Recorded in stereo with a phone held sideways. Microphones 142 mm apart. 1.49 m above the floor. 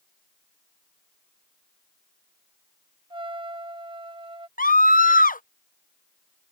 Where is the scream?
75° left (ahead or behind).